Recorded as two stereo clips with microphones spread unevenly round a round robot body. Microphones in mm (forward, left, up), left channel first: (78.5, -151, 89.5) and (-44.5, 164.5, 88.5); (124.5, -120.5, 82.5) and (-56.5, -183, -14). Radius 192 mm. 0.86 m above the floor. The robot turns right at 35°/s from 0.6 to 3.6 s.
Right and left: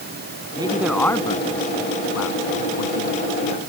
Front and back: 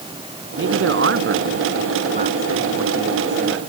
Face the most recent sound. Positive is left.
turn(degrees=-65)